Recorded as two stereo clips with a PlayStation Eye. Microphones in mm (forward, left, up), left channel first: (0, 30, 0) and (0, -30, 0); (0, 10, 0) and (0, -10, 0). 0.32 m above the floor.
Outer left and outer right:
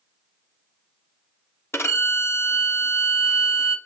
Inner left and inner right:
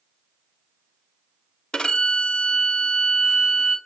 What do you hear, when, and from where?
1.7 s a violin: 45° left (ahead or behind), 1.4 m